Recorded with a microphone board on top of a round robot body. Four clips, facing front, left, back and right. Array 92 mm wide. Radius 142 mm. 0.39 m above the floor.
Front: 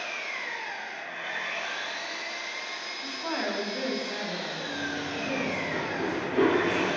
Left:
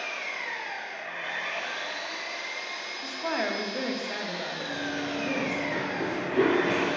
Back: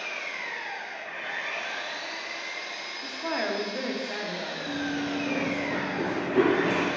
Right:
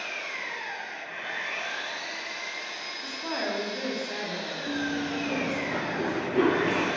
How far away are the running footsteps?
About 1.3 m.